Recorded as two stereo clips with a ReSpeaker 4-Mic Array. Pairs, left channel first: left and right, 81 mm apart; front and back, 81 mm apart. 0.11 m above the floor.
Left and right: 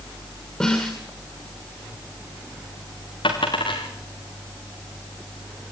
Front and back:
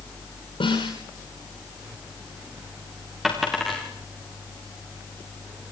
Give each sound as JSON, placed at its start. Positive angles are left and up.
{"t": 0.6, "sound": "a snare drum", "azimuth_deg": 10, "distance_m": 9.5}
{"t": 3.2, "sound": "a dropped coin", "azimuth_deg": 95, "distance_m": 4.5}